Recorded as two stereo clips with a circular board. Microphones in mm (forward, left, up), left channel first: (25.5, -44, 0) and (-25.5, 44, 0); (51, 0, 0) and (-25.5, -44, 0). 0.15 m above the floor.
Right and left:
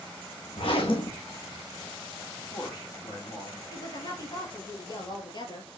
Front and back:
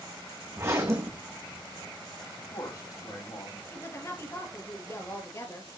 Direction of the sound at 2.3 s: 15° right.